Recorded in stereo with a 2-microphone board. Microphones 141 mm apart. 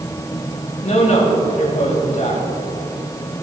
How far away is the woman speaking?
About 3.5 m.